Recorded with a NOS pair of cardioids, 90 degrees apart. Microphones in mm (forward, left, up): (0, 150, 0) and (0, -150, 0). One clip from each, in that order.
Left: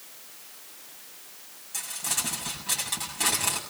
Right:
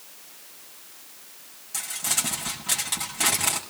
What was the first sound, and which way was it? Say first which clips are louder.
Crumpling: right 3 dB; 25° right.